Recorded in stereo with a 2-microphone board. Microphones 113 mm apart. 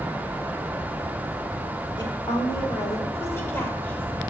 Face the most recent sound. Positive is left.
turn(degrees=10)  # may be behind; listen again after turning